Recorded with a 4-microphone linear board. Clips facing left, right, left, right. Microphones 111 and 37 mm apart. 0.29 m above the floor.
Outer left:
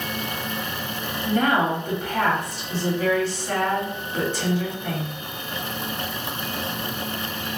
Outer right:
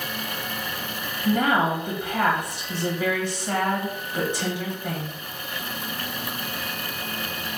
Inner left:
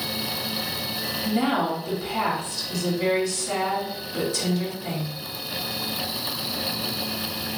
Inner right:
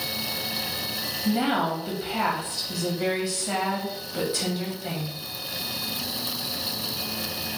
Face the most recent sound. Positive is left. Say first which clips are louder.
# even, even
turn(degrees=-15)  # may be behind; listen again after turning